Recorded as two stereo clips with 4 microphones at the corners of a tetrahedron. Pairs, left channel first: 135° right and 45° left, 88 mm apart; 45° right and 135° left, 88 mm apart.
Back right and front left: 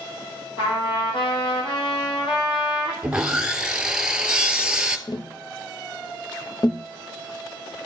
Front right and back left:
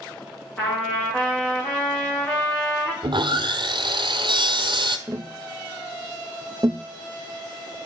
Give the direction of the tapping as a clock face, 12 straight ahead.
6 o'clock.